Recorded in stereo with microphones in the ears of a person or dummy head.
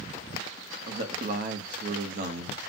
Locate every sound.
0.9 s a man speaking: 55° right (ahead or behind), 0.9 m